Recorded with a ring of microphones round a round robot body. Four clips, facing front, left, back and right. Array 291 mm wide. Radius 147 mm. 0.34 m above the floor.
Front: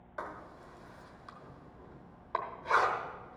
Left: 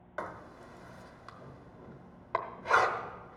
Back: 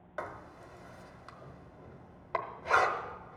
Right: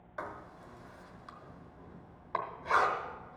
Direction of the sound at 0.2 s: 115° left.